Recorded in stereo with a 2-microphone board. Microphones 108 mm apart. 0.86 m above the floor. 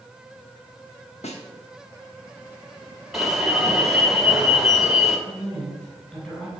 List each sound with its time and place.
1.2 s a snare drum: 80° left, 1.1 m
3.1 s an alarm: centre (ahead or behind), 1.4 m
5.3 s a woman speaking: 15° left (ahead or behind), 3.5 m